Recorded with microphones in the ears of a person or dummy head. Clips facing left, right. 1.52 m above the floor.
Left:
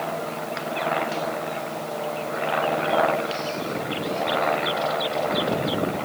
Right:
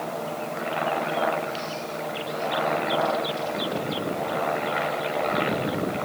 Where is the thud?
I don't hear a thud.